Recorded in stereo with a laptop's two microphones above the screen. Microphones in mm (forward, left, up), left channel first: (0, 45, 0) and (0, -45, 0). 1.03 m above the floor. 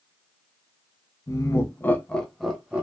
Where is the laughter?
40° left (ahead or behind), 0.7 m; by 2.8 s 15° right (ahead or behind), 0.8 m.